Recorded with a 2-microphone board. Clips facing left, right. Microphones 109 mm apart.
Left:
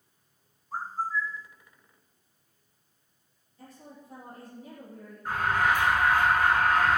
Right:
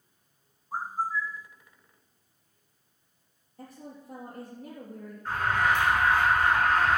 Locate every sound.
0.7 s a bird: 15° right (ahead or behind), 0.6 m
3.6 s a woman speaking: 45° right (ahead or behind), 4 m
5.2 s an alarm: 10° left (ahead or behind), 7.5 m